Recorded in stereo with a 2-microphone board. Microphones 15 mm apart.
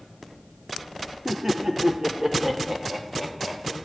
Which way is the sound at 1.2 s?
30° right (ahead or behind).